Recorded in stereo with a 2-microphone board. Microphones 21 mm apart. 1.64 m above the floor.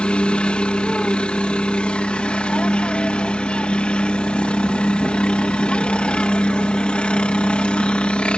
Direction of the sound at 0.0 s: 65° left (ahead or behind).